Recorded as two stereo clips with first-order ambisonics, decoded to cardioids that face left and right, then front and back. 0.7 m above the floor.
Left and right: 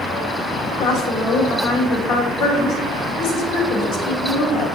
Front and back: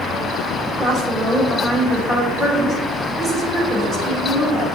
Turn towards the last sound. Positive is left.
turn(degrees=115)